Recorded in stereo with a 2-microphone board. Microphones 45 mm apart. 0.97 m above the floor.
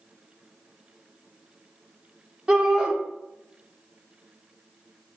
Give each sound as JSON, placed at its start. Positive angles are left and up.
{"t": 2.5, "sound": "a shout", "side_deg": -15, "distance_m": 0.5}